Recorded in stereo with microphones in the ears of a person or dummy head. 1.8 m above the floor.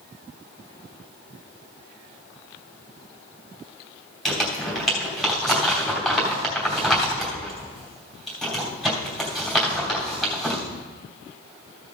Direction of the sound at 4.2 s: Centre (ahead or behind).